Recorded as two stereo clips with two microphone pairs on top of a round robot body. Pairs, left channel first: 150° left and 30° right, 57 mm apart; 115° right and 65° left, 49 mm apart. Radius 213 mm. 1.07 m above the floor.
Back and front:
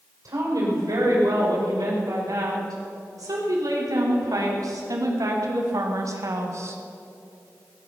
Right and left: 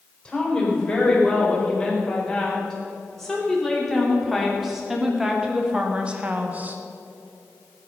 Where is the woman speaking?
40° right, 5.5 m; by 6.8 s 10° left, 1.7 m.